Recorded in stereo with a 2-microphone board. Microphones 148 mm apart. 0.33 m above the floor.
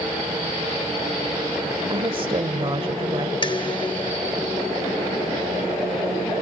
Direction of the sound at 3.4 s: 35° left (ahead or behind).